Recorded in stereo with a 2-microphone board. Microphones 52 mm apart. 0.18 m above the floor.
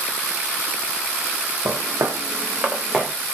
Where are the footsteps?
65° right (ahead or behind), 0.9 m; by 3.1 s 5° right (ahead or behind), 1.2 m.